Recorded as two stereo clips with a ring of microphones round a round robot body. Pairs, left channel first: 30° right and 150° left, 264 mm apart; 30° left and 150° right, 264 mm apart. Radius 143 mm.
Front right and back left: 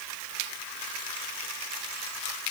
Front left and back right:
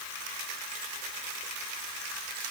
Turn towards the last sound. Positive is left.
No sound to turn to.